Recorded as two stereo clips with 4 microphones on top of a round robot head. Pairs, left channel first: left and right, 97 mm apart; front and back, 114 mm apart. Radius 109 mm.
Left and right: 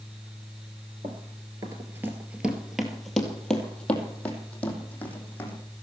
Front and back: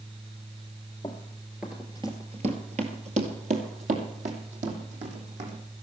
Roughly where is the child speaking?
No child speaking in this recording.